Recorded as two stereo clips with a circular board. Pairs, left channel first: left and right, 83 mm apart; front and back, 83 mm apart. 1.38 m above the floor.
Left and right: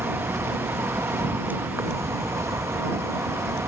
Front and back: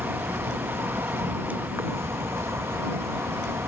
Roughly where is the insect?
Behind right.